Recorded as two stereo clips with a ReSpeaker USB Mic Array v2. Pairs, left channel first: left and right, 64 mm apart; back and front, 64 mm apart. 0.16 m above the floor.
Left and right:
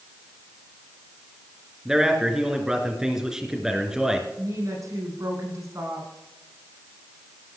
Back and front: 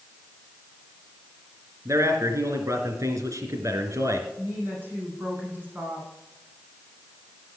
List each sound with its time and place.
1.9 s a man speaking: 10° right, 3 m
4.4 s a woman speaking: 60° right, 9 m